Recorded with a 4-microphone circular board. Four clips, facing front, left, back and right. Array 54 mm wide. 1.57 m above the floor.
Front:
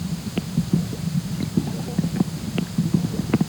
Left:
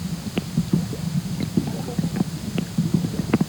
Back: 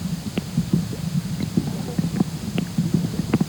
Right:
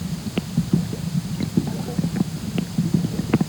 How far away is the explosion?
I don't hear an explosion.